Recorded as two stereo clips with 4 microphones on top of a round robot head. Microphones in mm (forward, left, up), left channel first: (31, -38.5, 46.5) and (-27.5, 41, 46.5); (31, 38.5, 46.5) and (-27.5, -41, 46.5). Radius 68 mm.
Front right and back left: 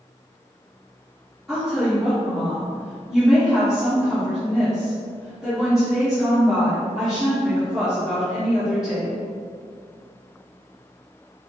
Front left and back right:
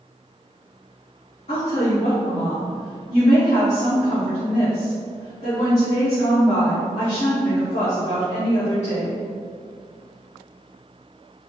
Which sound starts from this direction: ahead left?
A woman speaking, at 1.5 s.